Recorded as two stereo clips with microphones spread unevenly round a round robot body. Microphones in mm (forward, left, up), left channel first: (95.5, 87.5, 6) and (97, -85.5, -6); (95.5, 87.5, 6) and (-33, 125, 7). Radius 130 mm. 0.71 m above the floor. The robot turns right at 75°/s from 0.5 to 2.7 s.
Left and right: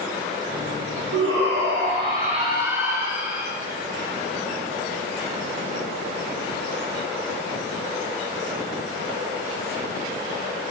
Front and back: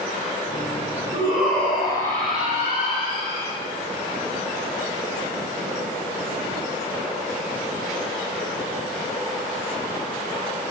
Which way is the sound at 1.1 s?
130° right.